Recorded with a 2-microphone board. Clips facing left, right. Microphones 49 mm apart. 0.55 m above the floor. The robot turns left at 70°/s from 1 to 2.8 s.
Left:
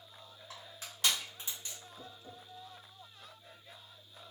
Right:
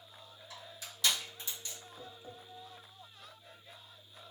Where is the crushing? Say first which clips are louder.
Even; 45° left (ahead or behind), 1.5 m; by 1.8 s 20° left (ahead or behind), 1.5 m.